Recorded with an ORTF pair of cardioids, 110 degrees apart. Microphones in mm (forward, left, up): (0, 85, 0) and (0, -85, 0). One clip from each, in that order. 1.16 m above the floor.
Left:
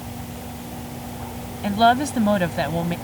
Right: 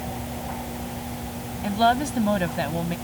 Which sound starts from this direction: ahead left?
A woman speaking, at 1.6 s.